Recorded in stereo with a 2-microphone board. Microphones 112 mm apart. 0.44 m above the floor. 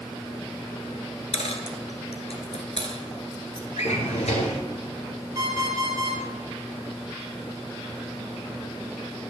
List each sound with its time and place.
1.3 s a dropped coin: 70° left (ahead or behind), 1.3 m
3.8 s a drawer: 85° left, 1.8 m
5.3 s an alarm clock: 30° right (ahead or behind), 4 m